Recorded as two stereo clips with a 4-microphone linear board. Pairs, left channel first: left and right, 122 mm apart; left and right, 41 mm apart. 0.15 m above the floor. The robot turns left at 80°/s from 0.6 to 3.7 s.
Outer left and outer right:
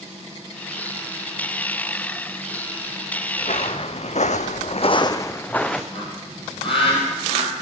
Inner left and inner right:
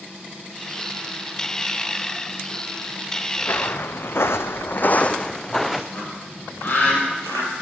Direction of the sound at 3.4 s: 75° left (ahead or behind).